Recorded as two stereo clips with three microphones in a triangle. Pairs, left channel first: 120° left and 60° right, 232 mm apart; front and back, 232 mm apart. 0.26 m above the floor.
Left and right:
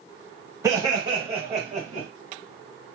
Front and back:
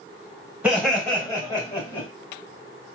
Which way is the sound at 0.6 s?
105° right.